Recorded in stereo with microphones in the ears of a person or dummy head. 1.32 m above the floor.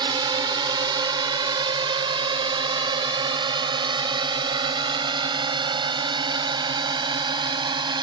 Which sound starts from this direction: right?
A drone, at 0.0 s.